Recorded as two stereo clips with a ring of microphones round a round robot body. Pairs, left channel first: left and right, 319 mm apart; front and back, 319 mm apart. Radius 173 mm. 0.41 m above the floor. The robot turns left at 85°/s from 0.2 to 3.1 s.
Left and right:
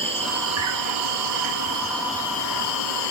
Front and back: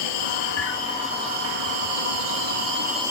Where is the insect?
15° right, 1.5 m; by 3.1 s 95° left, 1.5 m.